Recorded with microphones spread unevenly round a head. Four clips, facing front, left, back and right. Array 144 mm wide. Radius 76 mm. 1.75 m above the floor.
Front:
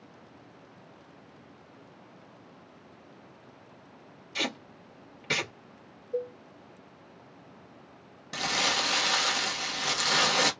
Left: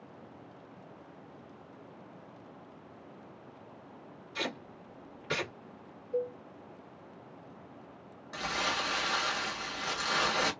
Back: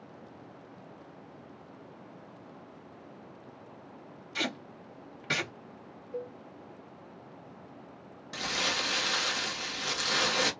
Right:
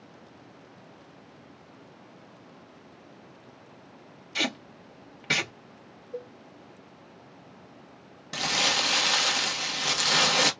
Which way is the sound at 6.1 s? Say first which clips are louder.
Left 6 dB, front 6 dB; 5° left.